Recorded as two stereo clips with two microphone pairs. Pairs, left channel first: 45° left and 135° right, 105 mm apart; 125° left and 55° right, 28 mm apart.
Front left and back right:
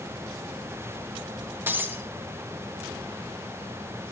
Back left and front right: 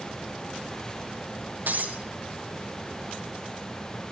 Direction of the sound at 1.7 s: 65° right.